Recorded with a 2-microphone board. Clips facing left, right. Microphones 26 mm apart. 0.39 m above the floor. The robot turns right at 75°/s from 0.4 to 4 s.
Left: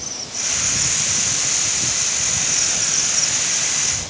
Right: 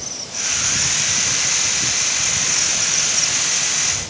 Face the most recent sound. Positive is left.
No sound to turn to.